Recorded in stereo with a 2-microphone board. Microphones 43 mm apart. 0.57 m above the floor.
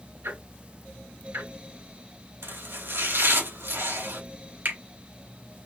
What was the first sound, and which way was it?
Ticking, 85° right.